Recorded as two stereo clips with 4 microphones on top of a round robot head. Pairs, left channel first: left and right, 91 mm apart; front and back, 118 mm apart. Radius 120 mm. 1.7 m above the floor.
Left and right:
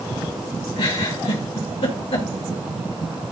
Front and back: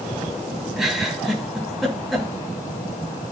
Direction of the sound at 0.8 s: 90° left.